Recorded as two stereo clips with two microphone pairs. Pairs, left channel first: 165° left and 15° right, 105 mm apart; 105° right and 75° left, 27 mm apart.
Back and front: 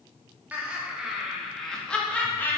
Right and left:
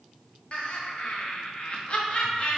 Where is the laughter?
85° right, 1.7 m; by 2.6 s 135° right, 1.6 m.